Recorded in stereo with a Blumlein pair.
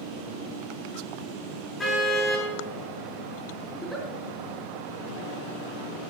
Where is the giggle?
Straight ahead, 4 m.